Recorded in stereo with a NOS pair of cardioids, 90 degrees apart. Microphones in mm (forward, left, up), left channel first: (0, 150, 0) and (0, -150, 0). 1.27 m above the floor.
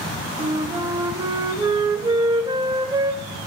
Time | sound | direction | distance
0.4 | a flute | 15° right | 2 m